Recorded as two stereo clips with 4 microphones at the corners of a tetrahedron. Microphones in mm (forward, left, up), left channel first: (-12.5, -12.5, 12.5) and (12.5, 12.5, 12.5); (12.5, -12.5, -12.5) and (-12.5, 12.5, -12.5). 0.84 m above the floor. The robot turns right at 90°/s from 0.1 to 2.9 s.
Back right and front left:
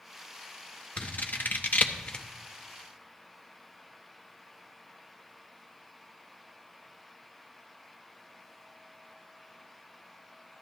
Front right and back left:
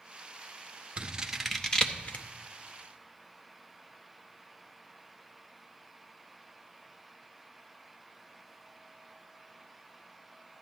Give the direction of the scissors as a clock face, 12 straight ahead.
6 o'clock.